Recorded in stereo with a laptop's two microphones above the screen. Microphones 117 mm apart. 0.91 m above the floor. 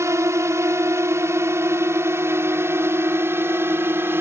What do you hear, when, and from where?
0.0 s a drone: 25° right (ahead or behind); by 4.2 s 20° right (ahead or behind)